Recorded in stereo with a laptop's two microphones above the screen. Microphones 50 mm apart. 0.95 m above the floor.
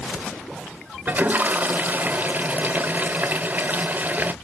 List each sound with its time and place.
1.1 s a toilet flushing: 35° right (ahead or behind), 1.0 m